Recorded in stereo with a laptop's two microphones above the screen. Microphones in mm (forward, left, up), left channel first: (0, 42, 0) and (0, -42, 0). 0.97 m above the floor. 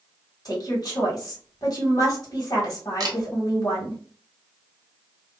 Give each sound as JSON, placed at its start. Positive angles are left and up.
{"t": 0.5, "sound": "a woman speaking", "side_deg": 50, "distance_m": 1.5}
{"t": 3.0, "sound": "a camera shutter", "side_deg": -50, "distance_m": 0.6}